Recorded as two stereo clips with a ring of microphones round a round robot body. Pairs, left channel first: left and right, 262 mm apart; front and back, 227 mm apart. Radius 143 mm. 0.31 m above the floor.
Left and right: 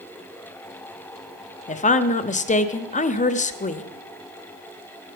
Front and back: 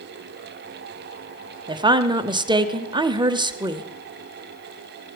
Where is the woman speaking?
125° left, 0.9 m.